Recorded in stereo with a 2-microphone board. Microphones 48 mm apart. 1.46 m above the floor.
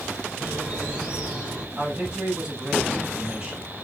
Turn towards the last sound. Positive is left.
turn(degrees=-15)  # may be behind; listen again after turning